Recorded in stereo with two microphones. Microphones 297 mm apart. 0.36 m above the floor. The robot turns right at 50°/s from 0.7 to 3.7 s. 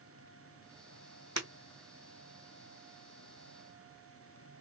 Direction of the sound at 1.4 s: 65° right (ahead or behind).